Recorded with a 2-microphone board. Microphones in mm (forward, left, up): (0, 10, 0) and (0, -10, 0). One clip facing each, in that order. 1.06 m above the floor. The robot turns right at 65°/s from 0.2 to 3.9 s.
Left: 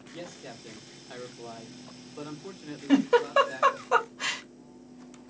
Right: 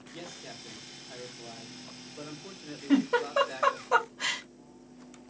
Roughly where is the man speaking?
Ahead.